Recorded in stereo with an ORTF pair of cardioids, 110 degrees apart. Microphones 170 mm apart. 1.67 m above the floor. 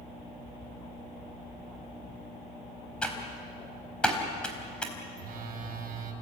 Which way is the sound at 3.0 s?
5° left.